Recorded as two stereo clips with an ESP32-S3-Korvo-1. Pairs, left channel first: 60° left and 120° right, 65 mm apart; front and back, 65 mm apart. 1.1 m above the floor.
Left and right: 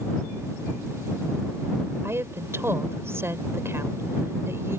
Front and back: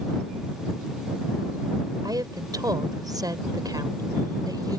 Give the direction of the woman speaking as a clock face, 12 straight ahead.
6 o'clock.